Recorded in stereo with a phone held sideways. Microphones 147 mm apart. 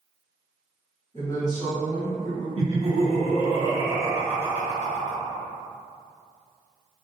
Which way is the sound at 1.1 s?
45° left (ahead or behind).